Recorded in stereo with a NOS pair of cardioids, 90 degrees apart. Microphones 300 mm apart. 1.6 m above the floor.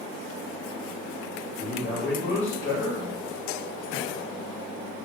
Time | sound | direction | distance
1.6 | a man speaking | 45° left | 1.4 m